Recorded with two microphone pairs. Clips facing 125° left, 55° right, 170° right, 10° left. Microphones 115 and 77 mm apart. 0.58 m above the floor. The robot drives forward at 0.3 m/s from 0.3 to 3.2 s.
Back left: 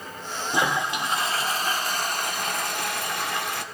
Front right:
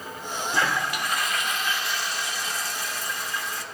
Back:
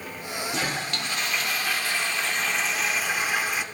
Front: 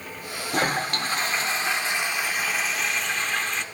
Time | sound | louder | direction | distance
0.5 | a toilet flushing | back left 2 dB, front 7 dB | 55° left | 0.9 m